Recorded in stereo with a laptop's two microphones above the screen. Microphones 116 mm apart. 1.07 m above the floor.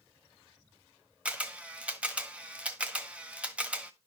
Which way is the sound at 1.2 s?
10° right (ahead or behind).